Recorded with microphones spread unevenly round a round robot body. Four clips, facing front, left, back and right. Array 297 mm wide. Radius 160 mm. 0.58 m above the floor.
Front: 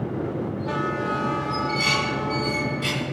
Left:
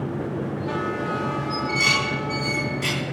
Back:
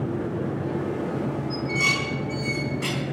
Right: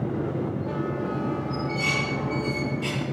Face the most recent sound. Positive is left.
turn(degrees=145)